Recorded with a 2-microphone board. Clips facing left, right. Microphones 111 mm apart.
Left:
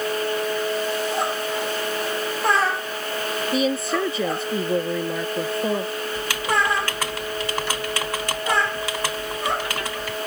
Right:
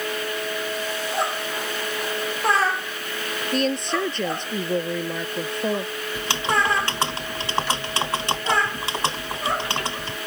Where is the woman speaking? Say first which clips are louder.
Left 1 dB; 5° left (ahead or behind).